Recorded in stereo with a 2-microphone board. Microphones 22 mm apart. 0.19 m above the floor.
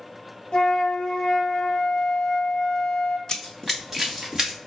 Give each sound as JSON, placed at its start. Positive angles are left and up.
{"t": 0.5, "sound": "a flute", "side_deg": 50, "distance_m": 0.6}
{"t": 3.3, "sound": "running footsteps", "side_deg": 30, "distance_m": 0.5}